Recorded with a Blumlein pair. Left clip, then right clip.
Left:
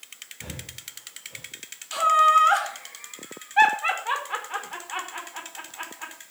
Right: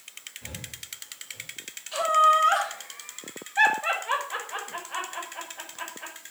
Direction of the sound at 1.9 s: 55° left.